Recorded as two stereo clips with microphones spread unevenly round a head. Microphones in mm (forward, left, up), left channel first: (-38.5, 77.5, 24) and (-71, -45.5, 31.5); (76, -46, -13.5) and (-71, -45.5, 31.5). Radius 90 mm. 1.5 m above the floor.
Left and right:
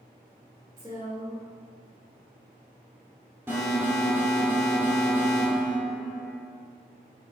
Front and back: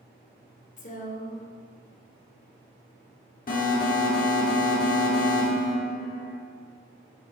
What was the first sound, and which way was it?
A woman speaking, 35° right.